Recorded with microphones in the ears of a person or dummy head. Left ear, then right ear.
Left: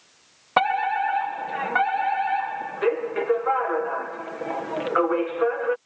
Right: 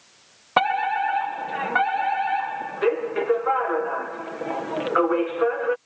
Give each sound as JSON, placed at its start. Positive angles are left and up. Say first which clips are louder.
{"t": 0.6, "sound": "a fire alarm", "louder": "even", "side_deg": 15}